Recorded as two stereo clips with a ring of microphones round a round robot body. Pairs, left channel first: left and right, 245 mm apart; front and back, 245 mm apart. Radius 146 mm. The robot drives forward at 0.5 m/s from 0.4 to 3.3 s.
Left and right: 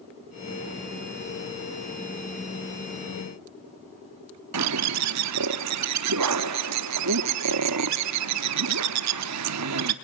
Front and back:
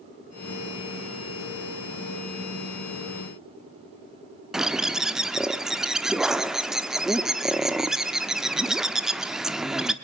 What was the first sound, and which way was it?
A bird, 90° right.